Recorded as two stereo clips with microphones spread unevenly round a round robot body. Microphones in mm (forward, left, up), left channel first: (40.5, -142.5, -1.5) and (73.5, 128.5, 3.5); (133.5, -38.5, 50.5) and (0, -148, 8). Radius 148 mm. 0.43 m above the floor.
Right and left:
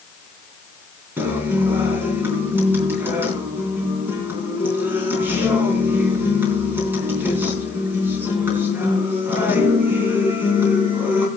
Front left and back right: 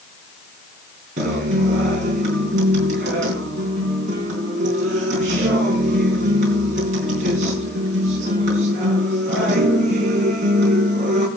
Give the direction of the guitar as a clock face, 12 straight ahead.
6 o'clock.